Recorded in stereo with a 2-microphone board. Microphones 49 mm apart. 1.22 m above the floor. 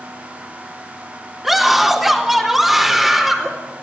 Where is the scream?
5° right (ahead or behind), 3.5 m.